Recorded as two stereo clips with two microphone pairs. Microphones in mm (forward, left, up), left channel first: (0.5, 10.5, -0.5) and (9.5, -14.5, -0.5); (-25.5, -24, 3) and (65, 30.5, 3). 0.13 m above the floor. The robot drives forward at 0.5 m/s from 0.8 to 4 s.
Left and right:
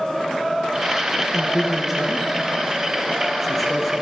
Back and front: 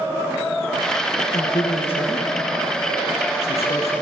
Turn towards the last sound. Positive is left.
turn(degrees=-155)